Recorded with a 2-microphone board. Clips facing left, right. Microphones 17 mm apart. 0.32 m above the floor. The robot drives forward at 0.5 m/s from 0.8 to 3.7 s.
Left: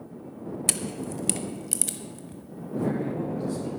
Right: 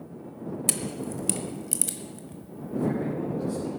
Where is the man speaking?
20° left (ahead or behind), 4.5 m.